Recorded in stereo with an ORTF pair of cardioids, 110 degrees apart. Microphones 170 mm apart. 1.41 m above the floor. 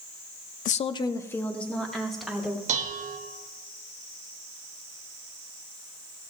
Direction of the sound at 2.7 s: 45° right.